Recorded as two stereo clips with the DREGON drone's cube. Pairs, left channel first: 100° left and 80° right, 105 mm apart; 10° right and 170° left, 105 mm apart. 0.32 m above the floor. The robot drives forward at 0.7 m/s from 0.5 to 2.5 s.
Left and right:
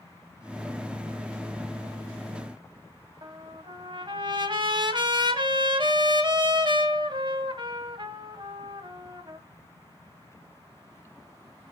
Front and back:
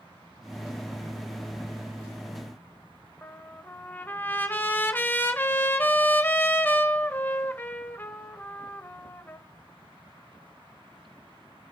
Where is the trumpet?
75° right, 1.3 m.